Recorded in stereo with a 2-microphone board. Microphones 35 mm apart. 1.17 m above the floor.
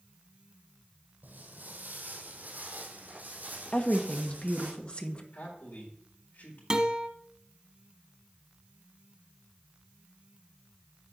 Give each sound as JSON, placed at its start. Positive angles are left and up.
{"t": 1.2, "sound": "footsteps", "side_deg": -60, "distance_m": 2.5}
{"t": 3.7, "sound": "a woman speaking", "side_deg": 30, "distance_m": 1.2}
{"t": 5.3, "sound": "a man speaking", "side_deg": 60, "distance_m": 4.0}
{"t": 6.7, "sound": "a guitar", "side_deg": -25, "distance_m": 1.4}